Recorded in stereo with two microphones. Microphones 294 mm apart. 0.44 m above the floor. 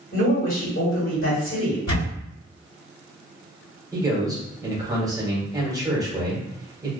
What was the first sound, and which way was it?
A woman speaking, 45° left (ahead or behind).